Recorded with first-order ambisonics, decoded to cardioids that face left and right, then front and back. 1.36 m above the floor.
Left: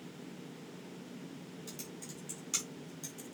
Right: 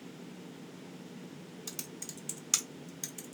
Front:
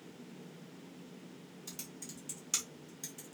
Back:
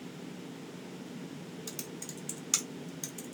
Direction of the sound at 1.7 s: 125° right.